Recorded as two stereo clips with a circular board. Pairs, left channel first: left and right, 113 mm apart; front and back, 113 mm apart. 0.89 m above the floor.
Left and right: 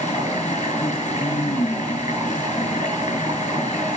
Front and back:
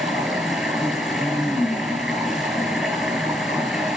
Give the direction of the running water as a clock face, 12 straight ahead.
9 o'clock.